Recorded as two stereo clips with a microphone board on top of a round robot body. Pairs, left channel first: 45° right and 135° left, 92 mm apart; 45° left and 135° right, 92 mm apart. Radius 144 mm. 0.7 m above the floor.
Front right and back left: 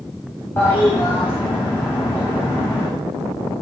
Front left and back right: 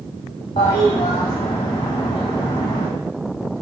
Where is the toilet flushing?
20° left, 0.6 m.